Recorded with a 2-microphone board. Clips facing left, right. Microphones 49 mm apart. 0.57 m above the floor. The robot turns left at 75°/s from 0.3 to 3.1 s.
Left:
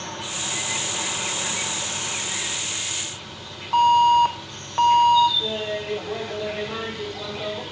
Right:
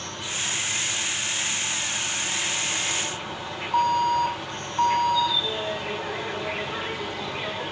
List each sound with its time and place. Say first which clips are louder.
0.0 s an insect: even; 175° left, 1.7 m; by 7.7 s 35° right, 1.7 m
3.7 s an alarm: left 6 dB; 65° left (ahead or behind), 2.5 m
5.4 s laughter: left 1 dB; 60° left (ahead or behind), 10 m